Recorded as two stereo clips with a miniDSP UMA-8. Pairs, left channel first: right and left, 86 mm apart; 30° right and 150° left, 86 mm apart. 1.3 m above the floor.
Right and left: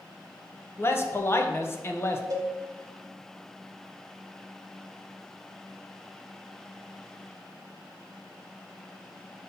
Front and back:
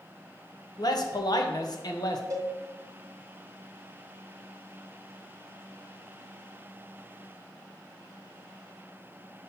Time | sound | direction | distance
0.8 | a man speaking | 35° right | 0.9 m
2.3 | a cowbell | 115° left | 1.1 m